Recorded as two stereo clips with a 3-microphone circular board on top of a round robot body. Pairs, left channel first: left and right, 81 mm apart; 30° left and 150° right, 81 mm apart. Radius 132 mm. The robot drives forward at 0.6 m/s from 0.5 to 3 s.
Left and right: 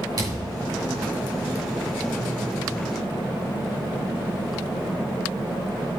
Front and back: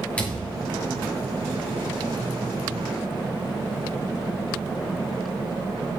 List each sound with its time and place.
0.2 s a thud: 40° right, 7 m; by 0.8 s 45° right, 7 m